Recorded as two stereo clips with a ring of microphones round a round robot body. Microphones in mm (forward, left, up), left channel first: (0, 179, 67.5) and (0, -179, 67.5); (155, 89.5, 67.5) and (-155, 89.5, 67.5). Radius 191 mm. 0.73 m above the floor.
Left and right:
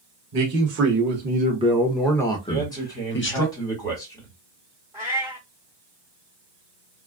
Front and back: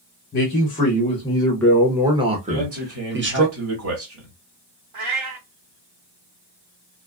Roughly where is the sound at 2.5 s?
Behind.